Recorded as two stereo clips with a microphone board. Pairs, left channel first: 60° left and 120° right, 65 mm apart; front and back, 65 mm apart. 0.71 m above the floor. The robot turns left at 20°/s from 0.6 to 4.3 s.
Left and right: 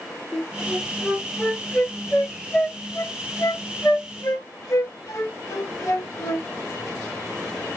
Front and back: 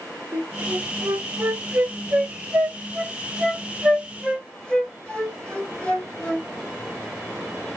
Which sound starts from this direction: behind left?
A flute, at 0.3 s.